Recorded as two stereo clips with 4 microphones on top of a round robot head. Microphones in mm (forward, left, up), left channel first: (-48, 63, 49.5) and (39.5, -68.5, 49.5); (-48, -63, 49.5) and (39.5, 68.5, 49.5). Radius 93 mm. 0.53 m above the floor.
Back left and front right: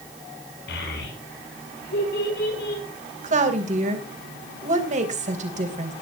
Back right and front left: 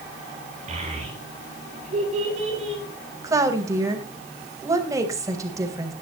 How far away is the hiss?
No hiss in this recording.